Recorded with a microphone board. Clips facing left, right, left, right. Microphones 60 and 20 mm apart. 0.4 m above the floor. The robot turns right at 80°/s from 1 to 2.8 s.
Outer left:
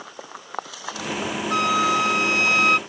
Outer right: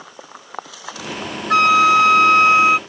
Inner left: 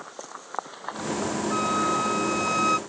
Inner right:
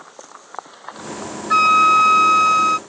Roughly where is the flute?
Right.